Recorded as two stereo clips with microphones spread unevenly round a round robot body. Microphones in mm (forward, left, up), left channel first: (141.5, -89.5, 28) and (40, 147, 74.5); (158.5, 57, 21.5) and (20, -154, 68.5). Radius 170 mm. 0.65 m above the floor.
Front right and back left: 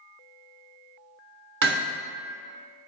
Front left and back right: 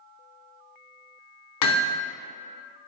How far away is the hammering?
About 1.2 m.